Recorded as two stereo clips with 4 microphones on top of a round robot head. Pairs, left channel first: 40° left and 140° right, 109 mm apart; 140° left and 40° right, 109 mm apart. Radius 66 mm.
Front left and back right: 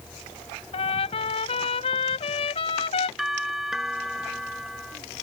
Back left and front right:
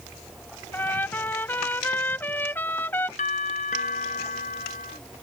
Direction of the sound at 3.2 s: 130° left.